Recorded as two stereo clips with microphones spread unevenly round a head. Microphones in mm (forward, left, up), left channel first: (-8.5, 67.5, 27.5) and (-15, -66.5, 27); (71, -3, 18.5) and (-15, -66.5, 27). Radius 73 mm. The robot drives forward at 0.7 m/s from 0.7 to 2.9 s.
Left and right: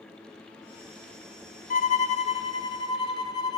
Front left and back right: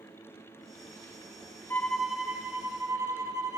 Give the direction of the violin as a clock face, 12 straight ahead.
8 o'clock.